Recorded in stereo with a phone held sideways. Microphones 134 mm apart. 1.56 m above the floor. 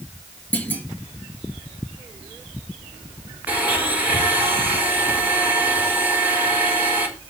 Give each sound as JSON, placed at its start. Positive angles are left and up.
{"t": 0.5, "sound": "a clunk", "side_deg": 15, "distance_m": 2.5}
{"t": 3.5, "sound": "a blender", "side_deg": -10, "distance_m": 5.0}